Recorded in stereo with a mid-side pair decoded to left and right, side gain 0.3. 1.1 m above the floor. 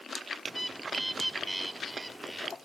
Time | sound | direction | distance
0.5 | a bird | 15° right | 1.3 m